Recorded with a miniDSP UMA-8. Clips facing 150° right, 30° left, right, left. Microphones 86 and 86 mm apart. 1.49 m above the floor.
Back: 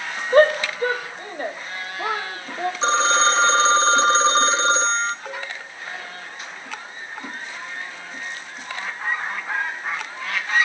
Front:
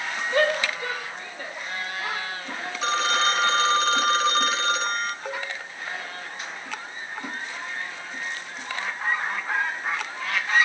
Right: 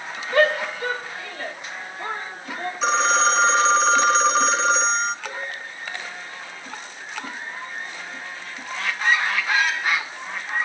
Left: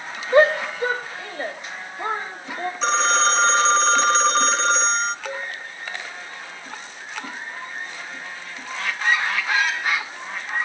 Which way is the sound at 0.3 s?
160° left.